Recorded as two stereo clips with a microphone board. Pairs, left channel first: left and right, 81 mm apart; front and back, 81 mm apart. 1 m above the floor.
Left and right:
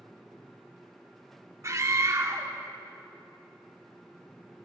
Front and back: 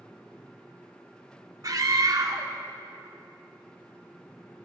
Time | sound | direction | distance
1.6 | a scream | 140° right | 2 m